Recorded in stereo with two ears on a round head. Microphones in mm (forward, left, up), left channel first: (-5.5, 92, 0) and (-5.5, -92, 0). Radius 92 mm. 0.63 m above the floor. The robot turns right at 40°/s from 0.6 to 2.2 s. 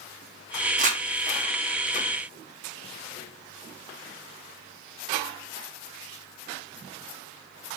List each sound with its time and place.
0.8 s crumpling: 40° right (ahead or behind), 0.9 m; by 1.0 s 35° right (ahead or behind), 0.9 m